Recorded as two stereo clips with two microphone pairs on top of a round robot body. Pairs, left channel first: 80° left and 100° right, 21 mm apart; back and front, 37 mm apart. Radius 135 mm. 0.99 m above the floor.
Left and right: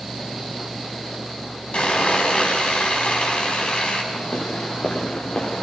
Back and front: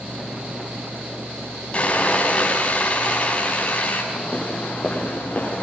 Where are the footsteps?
110° left, 7 m; by 5.6 s 120° left, 8 m.